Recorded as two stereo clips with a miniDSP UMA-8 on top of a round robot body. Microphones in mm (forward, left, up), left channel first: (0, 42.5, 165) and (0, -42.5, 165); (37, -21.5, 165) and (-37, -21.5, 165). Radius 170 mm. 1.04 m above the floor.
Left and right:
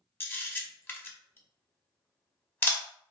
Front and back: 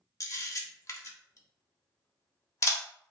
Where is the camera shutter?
30° left, 0.9 m.